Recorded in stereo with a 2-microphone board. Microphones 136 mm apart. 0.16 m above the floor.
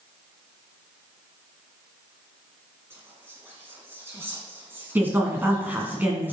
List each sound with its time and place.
2.9 s whispering: 20° right (ahead or behind), 1.3 m
5.0 s a woman speaking: 15° right (ahead or behind), 1.6 m